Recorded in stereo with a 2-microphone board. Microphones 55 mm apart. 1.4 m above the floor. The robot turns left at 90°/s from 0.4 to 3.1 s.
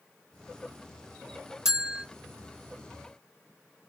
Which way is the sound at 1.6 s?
15° right.